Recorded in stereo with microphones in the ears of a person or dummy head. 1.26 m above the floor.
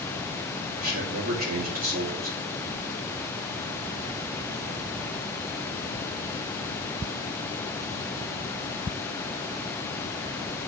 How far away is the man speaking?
About 2 m.